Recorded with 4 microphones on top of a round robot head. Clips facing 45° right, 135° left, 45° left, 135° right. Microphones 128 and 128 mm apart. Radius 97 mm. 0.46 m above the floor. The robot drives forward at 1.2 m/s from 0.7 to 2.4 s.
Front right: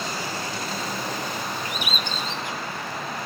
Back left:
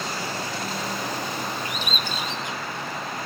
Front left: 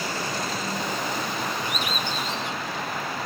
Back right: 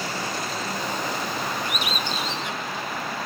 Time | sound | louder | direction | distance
1.6 | a bird | even, even | 100° right | 0.5 m